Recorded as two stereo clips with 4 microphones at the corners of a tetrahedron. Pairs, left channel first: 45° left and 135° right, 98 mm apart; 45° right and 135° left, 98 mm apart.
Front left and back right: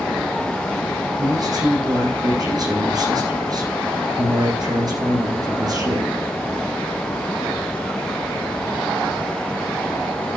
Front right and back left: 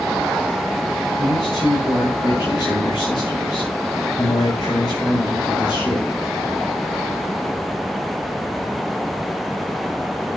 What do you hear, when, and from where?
1.2 s a man speaking: 90° right, 7 m